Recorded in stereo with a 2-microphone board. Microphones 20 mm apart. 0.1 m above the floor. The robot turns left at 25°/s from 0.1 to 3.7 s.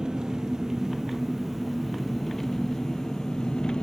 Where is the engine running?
135° right, 1.0 m; by 3.8 s 135° left, 1.0 m.